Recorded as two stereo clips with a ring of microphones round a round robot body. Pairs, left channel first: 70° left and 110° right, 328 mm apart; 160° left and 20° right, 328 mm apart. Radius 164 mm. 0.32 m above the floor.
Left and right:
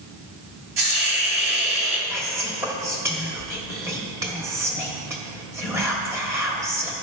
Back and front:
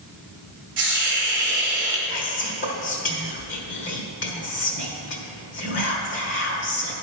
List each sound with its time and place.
0.8 s a hiss: 75° right, 1.7 m
2.1 s whispering: 175° left, 1.4 m